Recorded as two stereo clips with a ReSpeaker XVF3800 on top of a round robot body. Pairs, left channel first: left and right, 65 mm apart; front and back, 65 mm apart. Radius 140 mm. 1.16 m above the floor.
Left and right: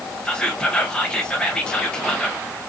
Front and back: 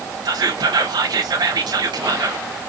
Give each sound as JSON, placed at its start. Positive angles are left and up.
{"t": 0.2, "sound": "whispering", "azimuth_deg": 170, "distance_m": 1.0}